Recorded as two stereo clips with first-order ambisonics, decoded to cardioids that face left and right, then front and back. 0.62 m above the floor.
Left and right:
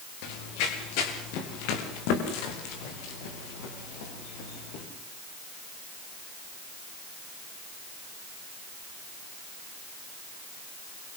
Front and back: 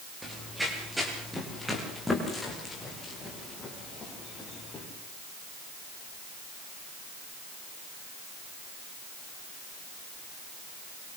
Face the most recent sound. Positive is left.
turn(degrees=75)